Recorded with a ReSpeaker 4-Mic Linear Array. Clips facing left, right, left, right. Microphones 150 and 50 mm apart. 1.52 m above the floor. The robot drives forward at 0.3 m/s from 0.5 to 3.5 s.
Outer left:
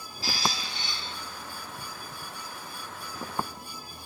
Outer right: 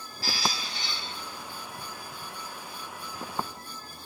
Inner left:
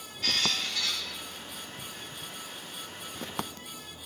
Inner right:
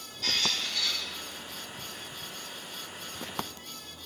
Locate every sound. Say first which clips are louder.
0.2 s a squeak: outer left 1 dB, inner left 1 dB; 25° left (ahead or behind), 1.3 m